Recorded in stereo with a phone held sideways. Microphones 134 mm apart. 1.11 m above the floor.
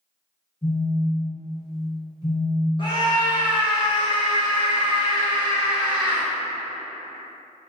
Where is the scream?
40° left (ahead or behind), 1.0 m.